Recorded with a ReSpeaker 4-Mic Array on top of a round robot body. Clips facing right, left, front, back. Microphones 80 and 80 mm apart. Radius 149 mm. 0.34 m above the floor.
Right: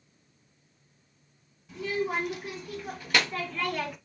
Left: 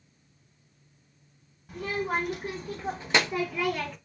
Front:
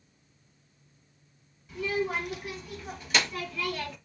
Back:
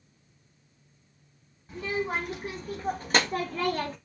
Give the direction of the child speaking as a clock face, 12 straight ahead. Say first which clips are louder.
Even, front 1 dB; 8 o'clock.